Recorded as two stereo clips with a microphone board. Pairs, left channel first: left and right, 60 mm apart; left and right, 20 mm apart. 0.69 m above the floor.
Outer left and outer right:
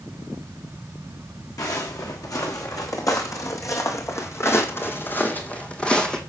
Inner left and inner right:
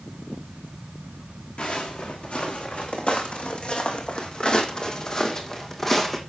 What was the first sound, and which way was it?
Footsteps, 80° left.